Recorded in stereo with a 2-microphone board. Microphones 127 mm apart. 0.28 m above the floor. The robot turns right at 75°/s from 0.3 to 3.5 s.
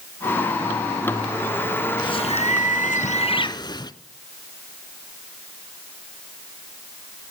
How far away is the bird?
About 0.6 m.